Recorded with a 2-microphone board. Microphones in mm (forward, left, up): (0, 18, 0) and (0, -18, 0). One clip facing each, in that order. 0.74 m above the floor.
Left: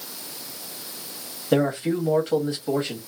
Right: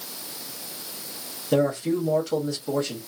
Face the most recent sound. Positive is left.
turn(degrees=30)  # may be behind; listen again after turning